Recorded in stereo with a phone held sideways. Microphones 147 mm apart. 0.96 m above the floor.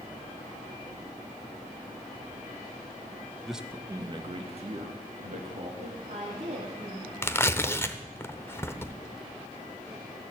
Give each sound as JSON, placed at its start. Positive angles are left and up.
{"t": 3.5, "sound": "a man speaking", "side_deg": 0, "distance_m": 0.7}
{"t": 5.8, "sound": "a woman speaking", "side_deg": -65, "distance_m": 3.0}
{"t": 7.2, "sound": "tearing paper", "side_deg": 15, "distance_m": 0.6}